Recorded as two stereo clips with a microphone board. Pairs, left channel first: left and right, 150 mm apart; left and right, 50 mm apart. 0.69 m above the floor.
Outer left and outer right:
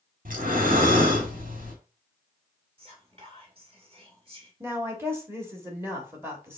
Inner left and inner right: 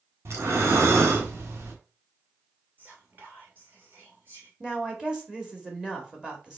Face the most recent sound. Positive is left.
turn(degrees=-15)  # may be behind; listen again after turning